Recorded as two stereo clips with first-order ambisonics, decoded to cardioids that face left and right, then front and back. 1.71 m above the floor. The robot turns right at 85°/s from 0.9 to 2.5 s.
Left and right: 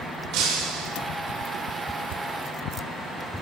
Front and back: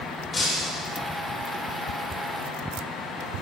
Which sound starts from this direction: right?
Breaking glass, at 0.3 s.